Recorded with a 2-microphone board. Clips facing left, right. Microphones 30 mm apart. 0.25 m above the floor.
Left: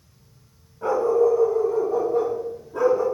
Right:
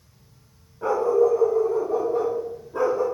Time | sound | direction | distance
0.8 | a dog barking | 10° right (ahead or behind) | 6 m